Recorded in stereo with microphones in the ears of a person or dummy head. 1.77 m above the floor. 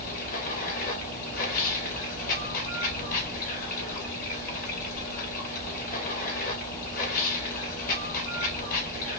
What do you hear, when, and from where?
0.0 s running water: 50° left (ahead or behind), 2 m